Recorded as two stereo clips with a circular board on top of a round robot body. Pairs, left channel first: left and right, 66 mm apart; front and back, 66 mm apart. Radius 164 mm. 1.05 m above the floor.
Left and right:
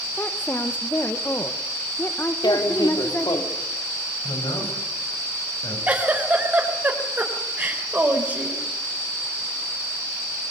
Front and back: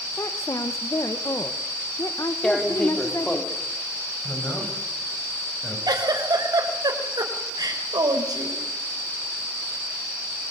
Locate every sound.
0.2 s a woman speaking: 35° left, 1.6 m
2.4 s tearing paper: 85° left, 3 m
4.2 s a man speaking: 75° left, 8.5 m
5.9 s a giggle: 155° right, 4 m